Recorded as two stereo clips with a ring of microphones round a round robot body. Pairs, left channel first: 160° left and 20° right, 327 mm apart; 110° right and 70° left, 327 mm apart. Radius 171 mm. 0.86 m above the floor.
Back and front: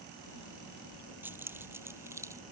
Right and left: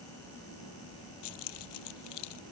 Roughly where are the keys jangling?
Right.